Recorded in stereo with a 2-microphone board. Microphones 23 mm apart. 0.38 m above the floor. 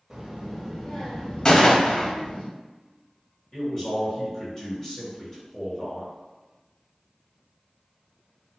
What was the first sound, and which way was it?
A child speaking, 25° right (ahead or behind).